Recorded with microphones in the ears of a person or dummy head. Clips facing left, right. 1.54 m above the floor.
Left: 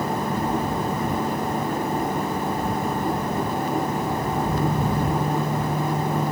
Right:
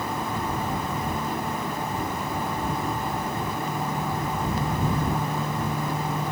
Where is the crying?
I don't hear crying.